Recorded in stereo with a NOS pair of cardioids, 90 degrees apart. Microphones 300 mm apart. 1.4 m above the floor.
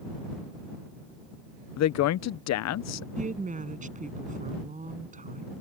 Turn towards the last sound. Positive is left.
turn(degrees=-25)